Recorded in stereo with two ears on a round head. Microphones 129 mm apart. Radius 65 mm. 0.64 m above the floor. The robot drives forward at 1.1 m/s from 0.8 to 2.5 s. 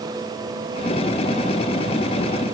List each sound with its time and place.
Only background noise.